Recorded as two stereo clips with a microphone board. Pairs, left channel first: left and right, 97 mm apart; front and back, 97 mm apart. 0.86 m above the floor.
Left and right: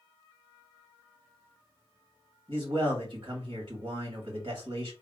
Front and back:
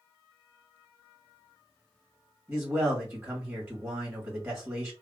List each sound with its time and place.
2.5 s a man speaking: 120° right, 1.6 m